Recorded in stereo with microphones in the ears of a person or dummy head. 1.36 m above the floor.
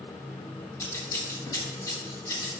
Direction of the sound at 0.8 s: 20° left (ahead or behind).